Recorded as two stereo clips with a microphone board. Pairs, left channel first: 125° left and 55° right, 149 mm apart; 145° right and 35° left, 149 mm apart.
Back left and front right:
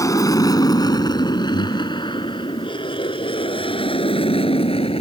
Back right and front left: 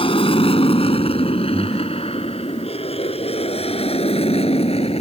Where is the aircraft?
175° right; by 5.0 s 170° left.